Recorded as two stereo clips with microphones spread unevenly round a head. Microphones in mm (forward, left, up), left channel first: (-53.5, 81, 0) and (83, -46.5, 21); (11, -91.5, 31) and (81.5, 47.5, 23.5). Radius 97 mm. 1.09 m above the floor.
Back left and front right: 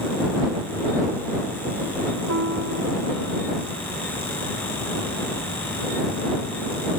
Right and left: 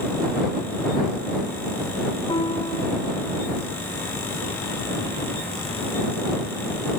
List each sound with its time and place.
2.3 s a piano: 55° right